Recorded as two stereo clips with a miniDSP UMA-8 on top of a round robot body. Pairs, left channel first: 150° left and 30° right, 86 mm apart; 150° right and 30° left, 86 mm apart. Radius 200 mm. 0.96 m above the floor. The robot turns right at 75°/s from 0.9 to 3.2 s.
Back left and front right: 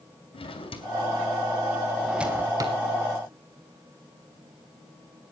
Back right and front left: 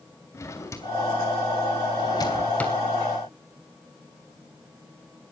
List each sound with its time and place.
0.3 s a drawer: 155° left, 3 m; by 2.8 s 65° right, 3 m